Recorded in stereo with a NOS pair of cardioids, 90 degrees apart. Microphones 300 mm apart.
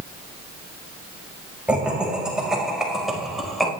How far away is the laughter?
About 6 m.